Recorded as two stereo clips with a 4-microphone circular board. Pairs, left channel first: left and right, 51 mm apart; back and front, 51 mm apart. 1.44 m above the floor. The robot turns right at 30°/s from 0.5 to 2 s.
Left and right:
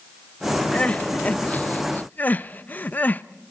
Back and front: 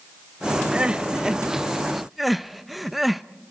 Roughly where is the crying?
Ahead left.